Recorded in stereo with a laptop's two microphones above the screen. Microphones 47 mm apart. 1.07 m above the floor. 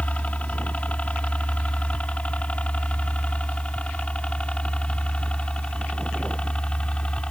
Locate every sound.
0.0 s a helicopter: 30° left (ahead or behind); by 7.3 s 20° left (ahead or behind)